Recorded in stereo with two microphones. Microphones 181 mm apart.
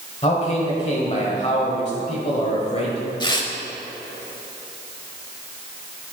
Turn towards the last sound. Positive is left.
turn(degrees=25)  # may be behind; listen again after turning